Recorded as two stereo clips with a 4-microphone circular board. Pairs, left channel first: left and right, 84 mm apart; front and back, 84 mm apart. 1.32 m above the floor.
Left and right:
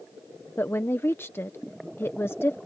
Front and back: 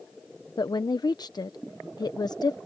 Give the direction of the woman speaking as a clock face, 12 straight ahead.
11 o'clock.